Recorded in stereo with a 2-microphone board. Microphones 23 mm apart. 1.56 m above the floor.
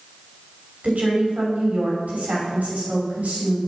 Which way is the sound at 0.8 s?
80° right.